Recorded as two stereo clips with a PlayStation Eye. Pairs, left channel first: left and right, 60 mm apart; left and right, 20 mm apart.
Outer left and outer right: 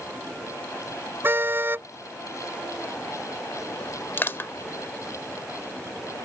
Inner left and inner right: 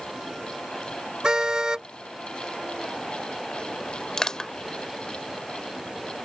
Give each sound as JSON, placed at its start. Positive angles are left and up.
{"t": 1.2, "sound": "a car horn", "side_deg": -35}
{"t": 4.2, "sound": "crushing", "side_deg": 40}